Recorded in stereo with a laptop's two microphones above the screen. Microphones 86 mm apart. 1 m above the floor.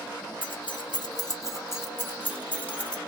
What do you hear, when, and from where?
0.4 s keys jangling: 70° left (ahead or behind), 0.6 m; by 3.0 s 10° left (ahead or behind), 1.4 m